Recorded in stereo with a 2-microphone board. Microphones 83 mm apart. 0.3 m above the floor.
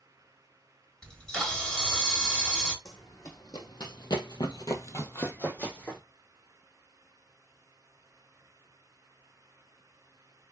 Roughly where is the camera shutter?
Centre.